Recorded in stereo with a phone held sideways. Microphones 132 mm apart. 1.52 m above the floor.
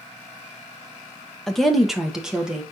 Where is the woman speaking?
Centre (ahead or behind), 0.7 m; by 2.6 s 5° right (ahead or behind), 1.2 m.